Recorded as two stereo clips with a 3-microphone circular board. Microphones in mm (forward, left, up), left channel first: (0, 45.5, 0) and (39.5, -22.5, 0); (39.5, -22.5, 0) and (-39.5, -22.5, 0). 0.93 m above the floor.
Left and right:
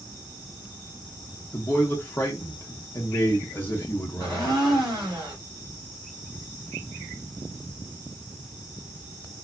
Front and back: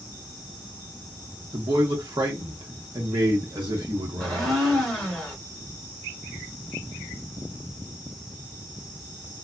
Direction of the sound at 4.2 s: 90° right.